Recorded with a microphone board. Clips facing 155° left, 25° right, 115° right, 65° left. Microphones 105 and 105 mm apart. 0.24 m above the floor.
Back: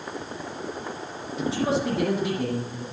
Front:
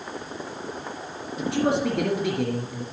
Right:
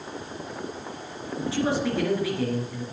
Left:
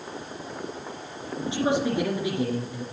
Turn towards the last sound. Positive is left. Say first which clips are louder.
# front 2 dB, left 1 dB
turn(degrees=0)